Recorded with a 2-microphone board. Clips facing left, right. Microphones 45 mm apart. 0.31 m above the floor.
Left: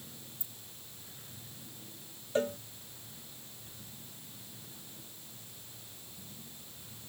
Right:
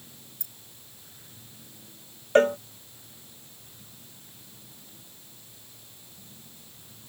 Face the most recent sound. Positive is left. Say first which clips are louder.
# right 12 dB
turn(degrees=-60)  # may be behind; listen again after turning